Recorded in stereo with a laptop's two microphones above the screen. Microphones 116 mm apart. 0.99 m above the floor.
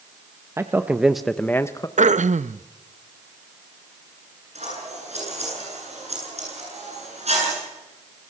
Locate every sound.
0.6 s a man speaking: 20° right (ahead or behind), 1.2 m; by 1.9 s 30° left (ahead or behind), 1.0 m
2.0 s throat clearing: 80° right, 0.5 m
4.5 s scissors: 65° right (ahead or behind), 9.5 m